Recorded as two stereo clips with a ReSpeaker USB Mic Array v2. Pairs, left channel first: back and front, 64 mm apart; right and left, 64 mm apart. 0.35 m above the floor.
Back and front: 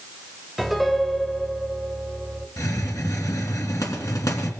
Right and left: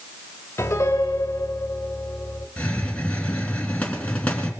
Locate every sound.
0.6 s a piano: 95° right, 1.7 m
2.6 s a hiss: 160° right, 2.5 m